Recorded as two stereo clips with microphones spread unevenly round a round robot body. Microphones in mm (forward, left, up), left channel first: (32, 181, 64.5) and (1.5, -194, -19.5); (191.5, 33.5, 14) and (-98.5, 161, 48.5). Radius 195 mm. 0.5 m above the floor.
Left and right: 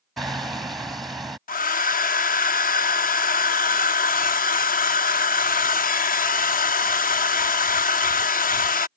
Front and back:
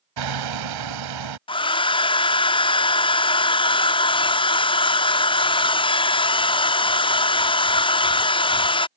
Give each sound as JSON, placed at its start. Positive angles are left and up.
{"t": 0.2, "sound": "hammering", "azimuth_deg": 180}
{"t": 1.5, "sound": "a hair dryer", "azimuth_deg": 15}